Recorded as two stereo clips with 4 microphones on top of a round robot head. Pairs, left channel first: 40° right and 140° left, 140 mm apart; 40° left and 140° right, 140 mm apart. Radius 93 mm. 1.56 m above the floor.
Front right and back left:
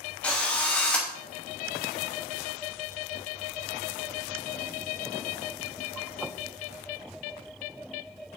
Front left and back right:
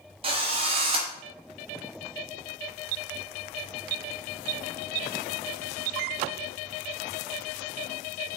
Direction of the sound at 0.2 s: 120° right.